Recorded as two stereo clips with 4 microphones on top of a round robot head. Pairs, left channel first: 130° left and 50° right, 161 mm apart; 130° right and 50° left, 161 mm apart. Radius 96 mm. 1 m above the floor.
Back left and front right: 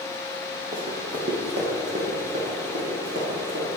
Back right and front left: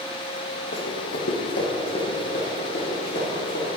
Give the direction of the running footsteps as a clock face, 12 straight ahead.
4 o'clock.